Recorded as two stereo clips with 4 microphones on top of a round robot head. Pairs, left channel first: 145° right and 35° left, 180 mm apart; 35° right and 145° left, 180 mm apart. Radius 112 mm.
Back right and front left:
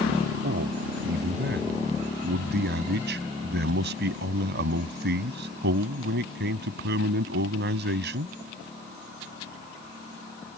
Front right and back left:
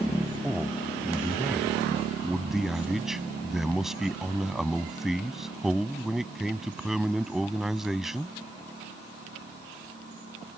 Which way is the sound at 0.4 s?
60° left.